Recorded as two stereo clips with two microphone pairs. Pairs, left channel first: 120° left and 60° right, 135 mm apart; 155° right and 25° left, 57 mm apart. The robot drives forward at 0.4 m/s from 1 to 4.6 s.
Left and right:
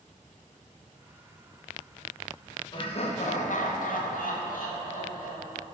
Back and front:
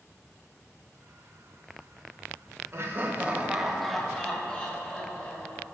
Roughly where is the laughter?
Left.